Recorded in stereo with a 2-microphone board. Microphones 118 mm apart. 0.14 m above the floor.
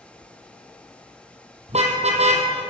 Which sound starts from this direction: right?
A car horn, at 1.7 s.